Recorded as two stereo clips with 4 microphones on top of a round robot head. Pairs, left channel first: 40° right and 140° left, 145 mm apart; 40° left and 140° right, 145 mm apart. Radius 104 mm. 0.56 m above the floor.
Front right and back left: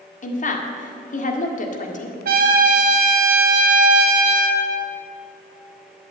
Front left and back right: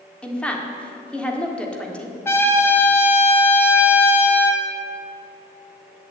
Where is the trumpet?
115° left, 1.3 m.